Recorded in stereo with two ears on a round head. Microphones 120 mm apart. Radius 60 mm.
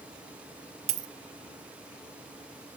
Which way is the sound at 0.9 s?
55° right (ahead or behind).